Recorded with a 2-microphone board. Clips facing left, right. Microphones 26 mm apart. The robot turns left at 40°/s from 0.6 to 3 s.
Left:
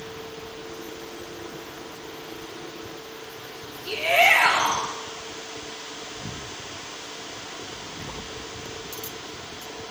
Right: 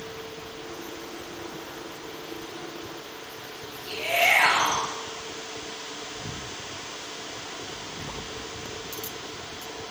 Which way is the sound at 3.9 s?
50° left (ahead or behind).